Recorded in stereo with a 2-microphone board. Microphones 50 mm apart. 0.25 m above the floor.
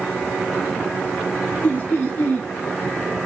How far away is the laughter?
About 2 m.